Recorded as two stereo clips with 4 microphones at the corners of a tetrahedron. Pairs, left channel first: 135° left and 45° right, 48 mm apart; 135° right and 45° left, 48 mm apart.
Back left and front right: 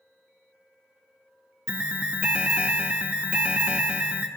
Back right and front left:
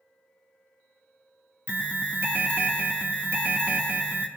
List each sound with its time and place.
1.7 s an alarm: 10° left, 1.0 m